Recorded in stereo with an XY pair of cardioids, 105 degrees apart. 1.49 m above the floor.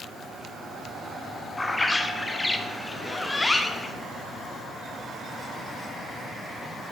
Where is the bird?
15° left, 0.6 m.